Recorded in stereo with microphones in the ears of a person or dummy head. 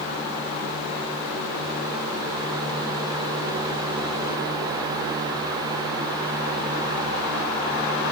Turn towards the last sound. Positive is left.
No sound to turn to.